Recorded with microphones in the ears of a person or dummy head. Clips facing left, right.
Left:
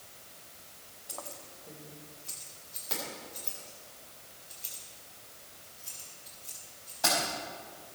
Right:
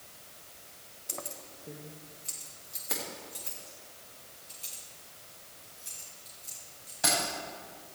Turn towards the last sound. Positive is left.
turn(degrees=-25)  # may be behind; listen again after turning